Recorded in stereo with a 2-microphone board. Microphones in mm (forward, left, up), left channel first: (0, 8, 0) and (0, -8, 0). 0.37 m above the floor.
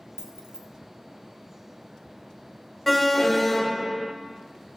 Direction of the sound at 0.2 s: 50° right (ahead or behind).